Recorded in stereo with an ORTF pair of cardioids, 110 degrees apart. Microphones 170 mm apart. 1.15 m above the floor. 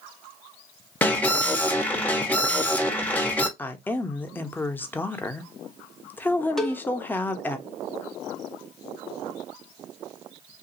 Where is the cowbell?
Straight ahead, 0.7 m.